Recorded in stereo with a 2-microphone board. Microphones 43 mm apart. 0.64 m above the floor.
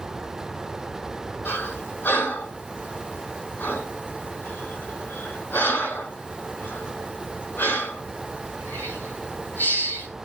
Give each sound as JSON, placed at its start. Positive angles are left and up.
{"t": 1.4, "sound": "breathing", "side_deg": 45, "distance_m": 6.0}